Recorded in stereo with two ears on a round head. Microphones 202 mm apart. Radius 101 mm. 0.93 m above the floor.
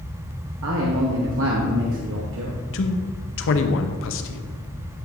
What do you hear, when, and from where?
0.6 s a man speaking: 60° right (ahead or behind), 0.9 m
2.7 s a man speaking: 60° left (ahead or behind), 0.7 m